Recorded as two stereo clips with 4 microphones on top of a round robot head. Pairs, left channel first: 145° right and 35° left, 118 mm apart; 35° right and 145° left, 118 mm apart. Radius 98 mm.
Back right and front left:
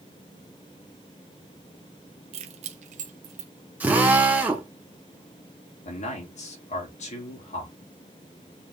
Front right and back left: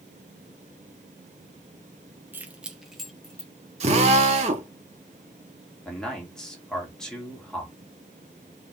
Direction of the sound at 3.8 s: 110° left.